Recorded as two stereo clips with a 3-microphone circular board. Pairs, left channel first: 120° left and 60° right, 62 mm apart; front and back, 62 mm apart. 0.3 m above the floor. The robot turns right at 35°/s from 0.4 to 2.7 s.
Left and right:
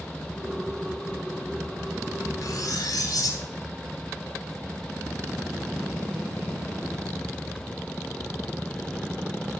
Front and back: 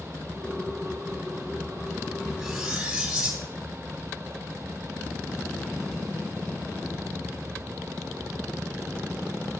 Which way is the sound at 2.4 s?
90° left.